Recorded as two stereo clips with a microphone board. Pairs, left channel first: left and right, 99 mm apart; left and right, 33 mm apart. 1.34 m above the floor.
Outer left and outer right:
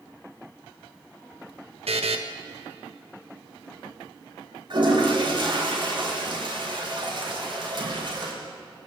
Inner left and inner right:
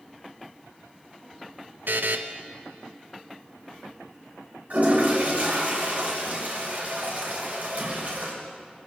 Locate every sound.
1.9 s a buzzer: 90° right, 1.5 m
4.7 s a toilet flushing: 55° right (ahead or behind), 6 m